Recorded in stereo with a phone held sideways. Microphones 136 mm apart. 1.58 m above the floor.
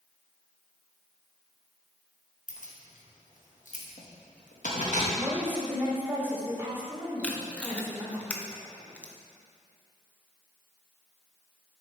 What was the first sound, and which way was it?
Keys jangling, 65° left (ahead or behind).